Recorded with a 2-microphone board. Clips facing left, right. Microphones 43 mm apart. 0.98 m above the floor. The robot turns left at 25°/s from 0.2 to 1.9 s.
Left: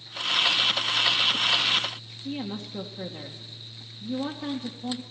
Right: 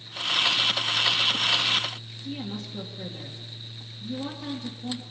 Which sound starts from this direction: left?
A woman speaking, at 2.2 s.